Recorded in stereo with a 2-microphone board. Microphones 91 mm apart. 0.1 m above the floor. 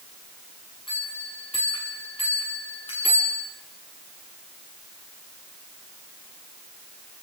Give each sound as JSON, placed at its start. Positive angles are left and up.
{"t": 0.9, "sound": "a bell", "side_deg": 75, "distance_m": 8.0}